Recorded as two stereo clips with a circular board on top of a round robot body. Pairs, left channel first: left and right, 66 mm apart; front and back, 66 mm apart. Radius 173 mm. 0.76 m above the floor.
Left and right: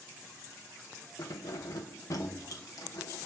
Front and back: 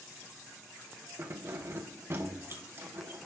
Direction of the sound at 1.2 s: 125° left.